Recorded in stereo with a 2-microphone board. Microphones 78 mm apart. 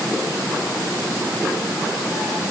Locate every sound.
Only background noise.